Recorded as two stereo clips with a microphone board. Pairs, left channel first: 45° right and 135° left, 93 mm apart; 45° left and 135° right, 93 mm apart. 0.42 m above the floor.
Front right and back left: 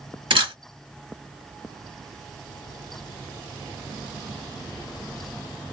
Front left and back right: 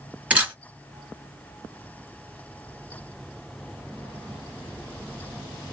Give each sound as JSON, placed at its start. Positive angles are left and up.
{"t": 0.3, "sound": "a camera shutter", "azimuth_deg": 150, "distance_m": 1.2}